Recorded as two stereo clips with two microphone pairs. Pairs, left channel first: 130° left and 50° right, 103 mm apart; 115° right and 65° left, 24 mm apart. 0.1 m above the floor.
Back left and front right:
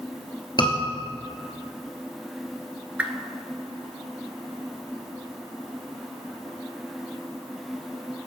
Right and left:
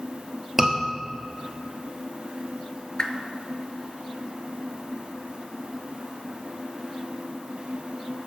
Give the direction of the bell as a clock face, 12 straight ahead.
No bell in this recording.